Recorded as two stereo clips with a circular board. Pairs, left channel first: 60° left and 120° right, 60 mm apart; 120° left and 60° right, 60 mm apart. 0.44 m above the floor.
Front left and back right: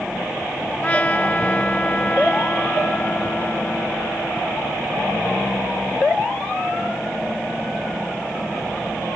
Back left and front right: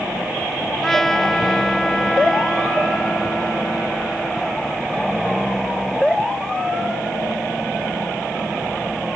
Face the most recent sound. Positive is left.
turn(degrees=45)